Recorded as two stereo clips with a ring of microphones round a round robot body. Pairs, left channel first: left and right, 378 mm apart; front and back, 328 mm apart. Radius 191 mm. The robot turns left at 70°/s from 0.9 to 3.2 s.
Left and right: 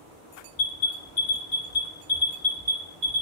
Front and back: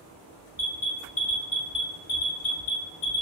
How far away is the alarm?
About 1.4 m.